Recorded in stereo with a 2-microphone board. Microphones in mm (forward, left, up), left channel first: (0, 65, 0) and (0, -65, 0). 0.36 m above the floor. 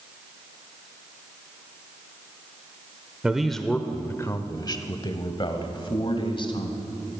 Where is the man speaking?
5° right (ahead or behind), 0.8 m; by 7.0 s 45° left (ahead or behind), 2.5 m.